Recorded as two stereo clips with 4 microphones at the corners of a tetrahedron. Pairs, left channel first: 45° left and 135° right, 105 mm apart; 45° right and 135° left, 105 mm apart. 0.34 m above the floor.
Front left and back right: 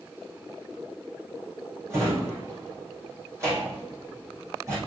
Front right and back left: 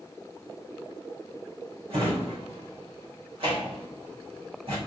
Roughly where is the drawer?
Behind.